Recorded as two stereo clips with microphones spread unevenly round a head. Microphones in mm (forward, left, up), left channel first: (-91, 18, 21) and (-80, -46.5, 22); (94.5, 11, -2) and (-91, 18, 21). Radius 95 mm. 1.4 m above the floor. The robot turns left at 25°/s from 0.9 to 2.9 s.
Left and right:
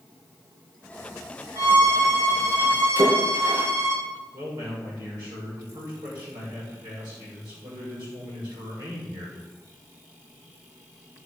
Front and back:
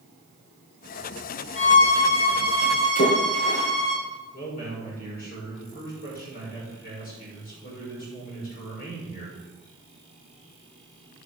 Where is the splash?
60° right, 5 m.